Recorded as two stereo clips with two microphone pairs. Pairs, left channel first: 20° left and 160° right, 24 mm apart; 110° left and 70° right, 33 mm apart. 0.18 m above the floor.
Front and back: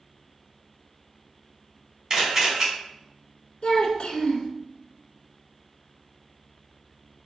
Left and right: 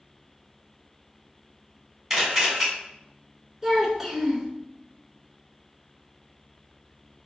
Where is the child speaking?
Straight ahead, 1.1 m.